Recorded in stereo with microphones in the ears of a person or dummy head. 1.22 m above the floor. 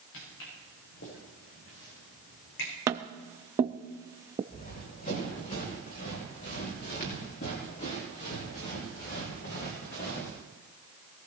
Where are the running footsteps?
50° left (ahead or behind), 9 m; by 10.4 s 60° left (ahead or behind), 6 m.